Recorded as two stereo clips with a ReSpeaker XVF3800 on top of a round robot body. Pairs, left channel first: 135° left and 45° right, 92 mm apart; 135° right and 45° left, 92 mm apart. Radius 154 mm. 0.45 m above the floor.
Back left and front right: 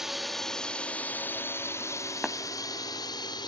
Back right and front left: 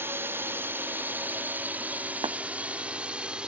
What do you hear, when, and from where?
0.0 s a drone: 35° left; by 3.5 s 120° left
2.2 s tapping: 50° left